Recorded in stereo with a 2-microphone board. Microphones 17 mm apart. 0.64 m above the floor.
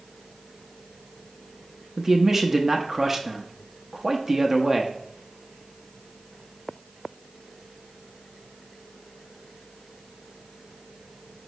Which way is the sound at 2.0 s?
30° right (ahead or behind).